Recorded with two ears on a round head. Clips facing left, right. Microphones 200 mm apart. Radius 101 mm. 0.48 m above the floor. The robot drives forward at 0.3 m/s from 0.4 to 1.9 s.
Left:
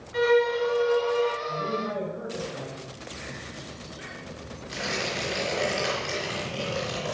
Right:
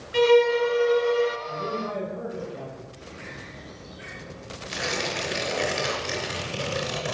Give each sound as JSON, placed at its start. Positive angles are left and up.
{"t": 0.1, "sound": "a violin", "side_deg": -35, "distance_m": 0.6}
{"t": 1.5, "sound": "a man speaking", "side_deg": 15, "distance_m": 6.5}
{"t": 3.0, "sound": "a bird", "side_deg": 30, "distance_m": 5.0}
{"t": 4.7, "sound": "tearing paper", "side_deg": -20, "distance_m": 3.5}